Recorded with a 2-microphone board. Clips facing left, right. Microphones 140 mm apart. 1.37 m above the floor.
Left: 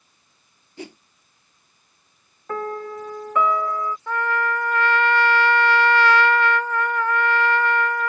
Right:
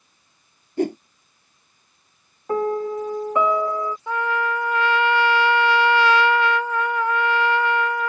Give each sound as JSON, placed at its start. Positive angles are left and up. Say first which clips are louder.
{"t": 0.8, "sound": "a whoosh", "louder": "right 15 dB", "side_deg": -50}
{"t": 2.5, "sound": "a piano", "louder": "right 6 dB", "side_deg": -20}
{"t": 4.1, "sound": "a trumpet", "louder": "even", "side_deg": -10}